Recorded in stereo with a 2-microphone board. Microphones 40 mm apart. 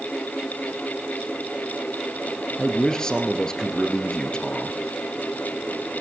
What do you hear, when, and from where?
2.6 s a man speaking: 20° left (ahead or behind), 2.5 m